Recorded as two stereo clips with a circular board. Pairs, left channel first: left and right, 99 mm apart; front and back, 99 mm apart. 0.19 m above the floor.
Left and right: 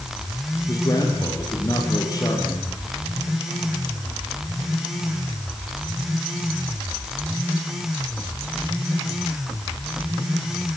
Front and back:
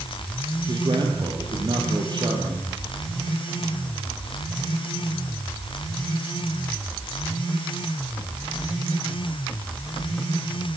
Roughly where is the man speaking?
Behind left.